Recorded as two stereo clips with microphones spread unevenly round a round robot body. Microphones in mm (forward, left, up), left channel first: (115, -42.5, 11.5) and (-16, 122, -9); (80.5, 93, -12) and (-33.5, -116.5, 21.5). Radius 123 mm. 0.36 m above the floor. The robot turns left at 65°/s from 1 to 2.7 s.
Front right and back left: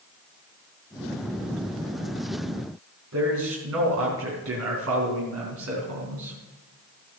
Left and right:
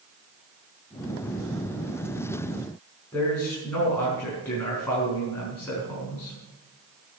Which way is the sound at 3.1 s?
145° left.